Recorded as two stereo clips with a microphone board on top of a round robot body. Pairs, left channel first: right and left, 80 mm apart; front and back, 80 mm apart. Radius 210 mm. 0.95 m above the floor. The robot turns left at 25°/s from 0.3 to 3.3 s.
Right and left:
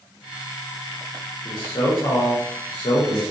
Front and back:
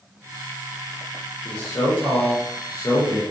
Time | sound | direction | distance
1.4 | a man speaking | 55° right | 1.0 m